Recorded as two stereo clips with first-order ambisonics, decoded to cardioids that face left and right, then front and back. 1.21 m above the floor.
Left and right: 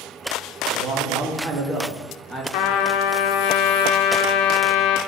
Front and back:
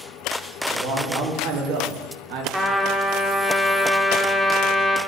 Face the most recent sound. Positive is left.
turn(degrees=95)